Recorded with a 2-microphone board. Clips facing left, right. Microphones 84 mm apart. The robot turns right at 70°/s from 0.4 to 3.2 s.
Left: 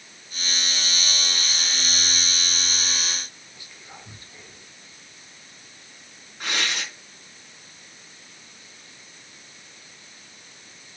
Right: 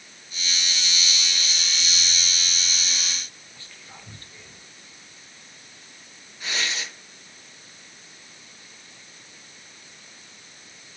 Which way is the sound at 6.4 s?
60° left (ahead or behind).